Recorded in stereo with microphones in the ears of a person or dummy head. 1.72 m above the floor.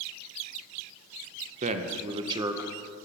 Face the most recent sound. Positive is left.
turn(degrees=-10)  # may be behind; listen again after turning